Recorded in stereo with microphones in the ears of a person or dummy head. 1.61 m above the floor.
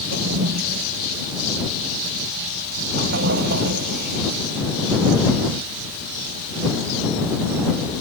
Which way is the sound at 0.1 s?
55° right (ahead or behind).